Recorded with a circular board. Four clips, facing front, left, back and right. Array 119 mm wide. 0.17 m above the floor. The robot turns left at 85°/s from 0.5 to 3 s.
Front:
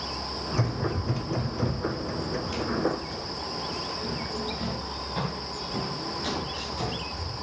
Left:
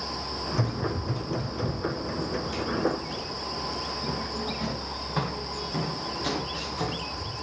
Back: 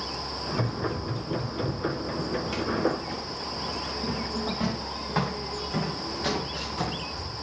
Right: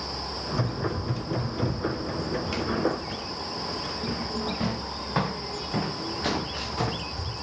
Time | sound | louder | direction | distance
0.5 | running footsteps | right 1 dB, even | 55° left | 4.5 m